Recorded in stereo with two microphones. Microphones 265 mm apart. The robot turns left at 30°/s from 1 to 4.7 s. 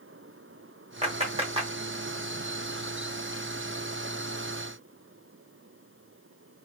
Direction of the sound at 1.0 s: 25° right (ahead or behind).